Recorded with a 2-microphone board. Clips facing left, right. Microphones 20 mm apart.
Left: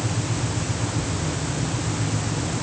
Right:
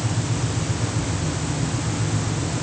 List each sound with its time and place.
Only background noise.